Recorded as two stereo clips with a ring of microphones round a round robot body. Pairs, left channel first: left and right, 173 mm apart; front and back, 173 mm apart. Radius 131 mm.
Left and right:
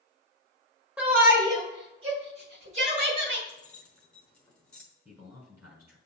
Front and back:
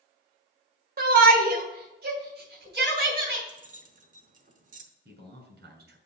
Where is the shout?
170° right, 1.7 m; by 3.4 s 140° right, 3.5 m.